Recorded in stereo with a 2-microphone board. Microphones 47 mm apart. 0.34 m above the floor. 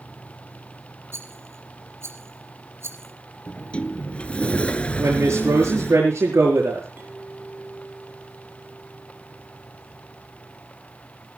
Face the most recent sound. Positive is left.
turn(degrees=-40)  # may be behind; listen again after turning